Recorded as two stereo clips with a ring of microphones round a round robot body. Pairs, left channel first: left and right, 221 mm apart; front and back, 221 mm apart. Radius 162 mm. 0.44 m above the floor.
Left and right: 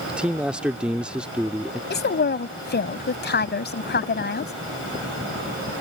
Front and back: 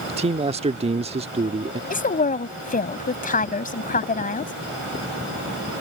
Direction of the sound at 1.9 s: 50° left.